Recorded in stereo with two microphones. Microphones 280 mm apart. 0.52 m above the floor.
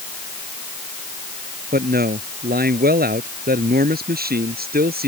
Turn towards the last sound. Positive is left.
turn(degrees=-35)  # may be behind; listen again after turning